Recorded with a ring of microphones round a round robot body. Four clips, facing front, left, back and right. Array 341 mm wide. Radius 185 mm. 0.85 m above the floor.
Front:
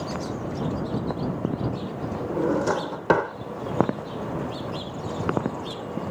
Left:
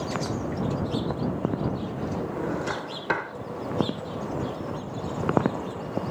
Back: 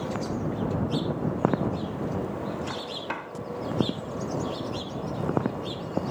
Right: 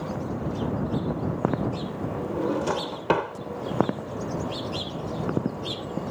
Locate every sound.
2.3 s a drawer: 20° right